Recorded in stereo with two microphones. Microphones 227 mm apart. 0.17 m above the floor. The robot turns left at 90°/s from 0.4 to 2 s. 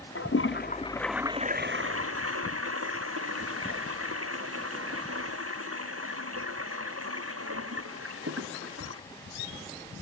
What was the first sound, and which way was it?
A toilet flushing, 65° left.